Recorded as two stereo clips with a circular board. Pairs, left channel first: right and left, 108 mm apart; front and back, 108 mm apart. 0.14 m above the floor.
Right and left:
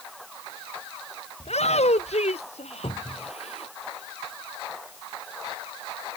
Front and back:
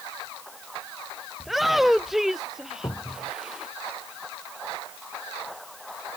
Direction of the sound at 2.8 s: 55° right.